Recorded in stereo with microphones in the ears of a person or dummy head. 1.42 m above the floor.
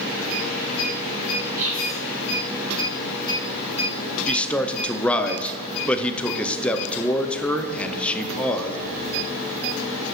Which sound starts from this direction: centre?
A man speaking, at 4.3 s.